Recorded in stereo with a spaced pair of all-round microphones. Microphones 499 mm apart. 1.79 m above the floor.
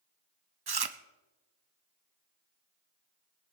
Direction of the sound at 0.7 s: 50° right (ahead or behind).